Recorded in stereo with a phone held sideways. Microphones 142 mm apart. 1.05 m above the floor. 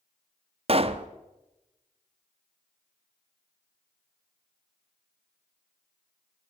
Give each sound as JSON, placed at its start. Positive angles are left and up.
{"t": 0.7, "sound": "a pop", "side_deg": -45, "distance_m": 0.6}